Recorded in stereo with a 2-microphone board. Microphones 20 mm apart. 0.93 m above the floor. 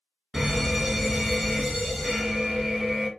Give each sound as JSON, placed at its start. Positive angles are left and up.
{"t": 0.3, "sound": "a fire alarm", "side_deg": -40, "distance_m": 1.6}